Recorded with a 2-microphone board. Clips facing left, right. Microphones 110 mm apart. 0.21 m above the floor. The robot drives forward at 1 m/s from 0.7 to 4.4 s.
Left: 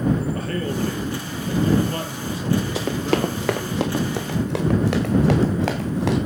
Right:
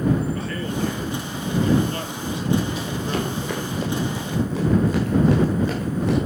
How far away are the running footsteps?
About 2 m.